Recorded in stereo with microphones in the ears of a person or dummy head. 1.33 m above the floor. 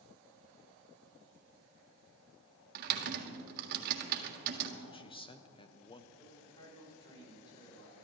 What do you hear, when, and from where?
2.8 s typing on a keyboard: 50° right (ahead or behind), 1.7 m
4.8 s a man speaking: 20° left (ahead or behind), 0.8 m
6.2 s a man speaking: 25° left (ahead or behind), 6 m